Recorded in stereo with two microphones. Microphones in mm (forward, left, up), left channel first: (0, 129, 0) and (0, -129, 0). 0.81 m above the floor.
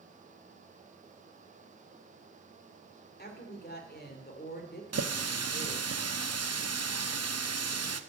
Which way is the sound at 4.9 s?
75° right (ahead or behind).